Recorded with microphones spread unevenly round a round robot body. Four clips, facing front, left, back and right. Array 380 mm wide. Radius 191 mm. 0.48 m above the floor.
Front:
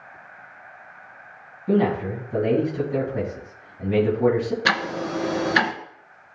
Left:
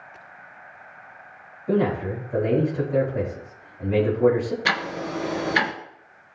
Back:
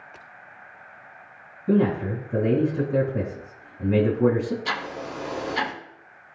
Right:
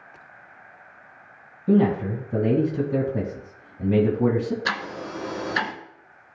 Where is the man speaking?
95° right, 3.5 m.